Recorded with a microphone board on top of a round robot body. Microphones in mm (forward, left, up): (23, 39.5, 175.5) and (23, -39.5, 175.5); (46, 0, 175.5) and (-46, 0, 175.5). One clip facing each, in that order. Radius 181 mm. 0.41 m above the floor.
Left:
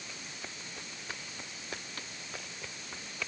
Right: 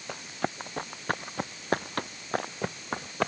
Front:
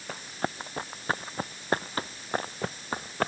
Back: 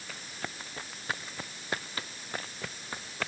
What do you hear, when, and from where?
0.1 s running footsteps: 55° right; by 3.3 s 50° right